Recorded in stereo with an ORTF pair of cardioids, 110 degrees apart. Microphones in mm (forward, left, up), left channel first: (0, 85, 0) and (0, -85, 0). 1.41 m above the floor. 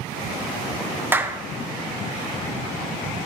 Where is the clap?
15° right, 1.5 m.